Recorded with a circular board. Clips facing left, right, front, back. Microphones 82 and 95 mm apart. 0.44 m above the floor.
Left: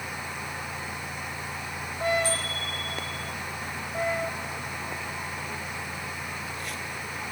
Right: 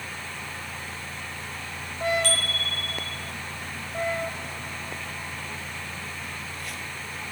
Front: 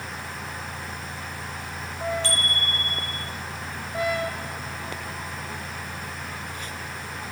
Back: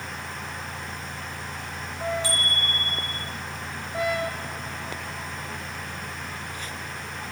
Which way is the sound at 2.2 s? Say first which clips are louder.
Right 1 dB, even; 100° right.